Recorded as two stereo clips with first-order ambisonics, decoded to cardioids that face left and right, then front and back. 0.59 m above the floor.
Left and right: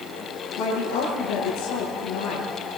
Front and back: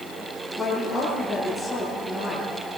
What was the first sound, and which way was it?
A woman speaking, 90° left.